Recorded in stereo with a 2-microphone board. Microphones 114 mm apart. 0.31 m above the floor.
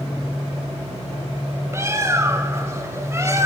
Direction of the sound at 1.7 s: 25° right (ahead or behind).